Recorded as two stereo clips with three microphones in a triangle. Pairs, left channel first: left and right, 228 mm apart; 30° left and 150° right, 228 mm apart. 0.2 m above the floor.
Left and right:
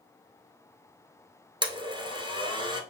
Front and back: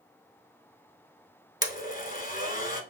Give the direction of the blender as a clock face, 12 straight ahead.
1 o'clock.